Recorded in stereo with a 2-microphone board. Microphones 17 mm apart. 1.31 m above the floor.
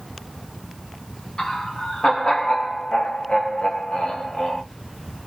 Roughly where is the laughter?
Left.